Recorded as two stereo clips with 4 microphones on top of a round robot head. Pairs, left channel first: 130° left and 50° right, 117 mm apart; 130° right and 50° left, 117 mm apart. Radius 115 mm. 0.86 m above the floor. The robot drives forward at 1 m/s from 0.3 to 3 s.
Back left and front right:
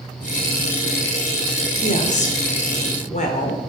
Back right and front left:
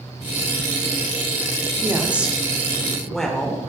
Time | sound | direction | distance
1.8 | a woman speaking | 120° left | 1.9 m